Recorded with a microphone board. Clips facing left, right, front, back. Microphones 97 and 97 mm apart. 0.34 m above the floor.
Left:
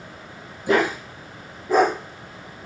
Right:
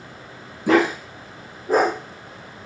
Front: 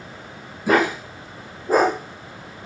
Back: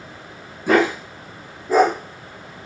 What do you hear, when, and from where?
0.7 s a dog barking: 85° right, 0.7 m; by 1.9 s 40° right, 1.0 m